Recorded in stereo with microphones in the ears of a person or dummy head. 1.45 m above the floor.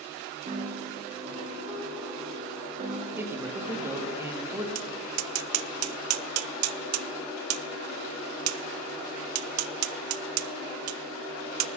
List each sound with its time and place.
0.5 s a piano: 45° right (ahead or behind), 3 m
3.2 s a man speaking: 10° right (ahead or behind), 1.7 m
4.8 s tapping: 85° right, 0.7 m